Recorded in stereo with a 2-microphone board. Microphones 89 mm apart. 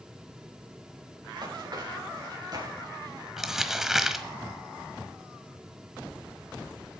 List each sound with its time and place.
1.2 s running footsteps: 55° right (ahead or behind), 6 m; by 3.3 s 45° right (ahead or behind), 7 m
3.4 s crumpling: 5° right (ahead or behind), 1.3 m